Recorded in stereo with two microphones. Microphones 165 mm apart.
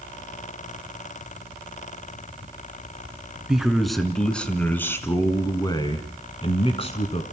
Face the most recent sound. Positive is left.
turn(degrees=40)  # may be behind; listen again after turning